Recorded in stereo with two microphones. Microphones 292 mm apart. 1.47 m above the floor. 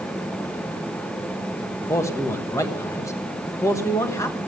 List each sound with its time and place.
1.9 s a man speaking: 10° left (ahead or behind), 1.3 m